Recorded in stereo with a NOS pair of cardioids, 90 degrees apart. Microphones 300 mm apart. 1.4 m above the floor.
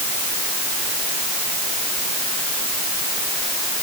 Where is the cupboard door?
No cupboard door in this recording.